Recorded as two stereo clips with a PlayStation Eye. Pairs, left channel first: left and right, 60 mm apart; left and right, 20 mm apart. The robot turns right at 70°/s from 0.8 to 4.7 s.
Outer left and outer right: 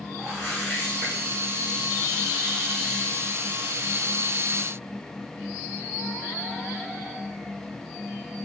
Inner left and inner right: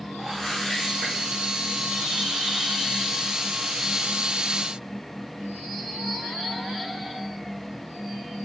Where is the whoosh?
25° left (ahead or behind), 1.7 m; by 1.2 s centre (ahead or behind), 1.7 m.